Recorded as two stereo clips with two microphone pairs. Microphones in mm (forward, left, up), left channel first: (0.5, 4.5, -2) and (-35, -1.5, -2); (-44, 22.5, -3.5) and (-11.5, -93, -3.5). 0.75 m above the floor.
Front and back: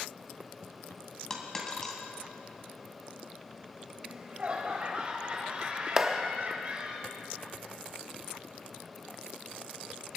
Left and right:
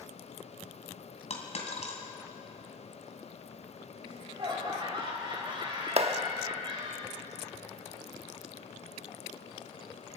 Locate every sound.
1.3 s a dropped coin: 80° left, 2.5 m
4.0 s laughter: 120° right, 4.5 m
6.0 s a clap: 100° right, 1.0 m